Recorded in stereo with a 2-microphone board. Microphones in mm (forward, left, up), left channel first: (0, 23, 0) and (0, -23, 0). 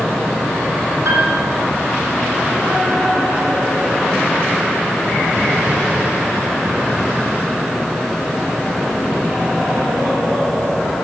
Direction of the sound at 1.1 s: 80° right.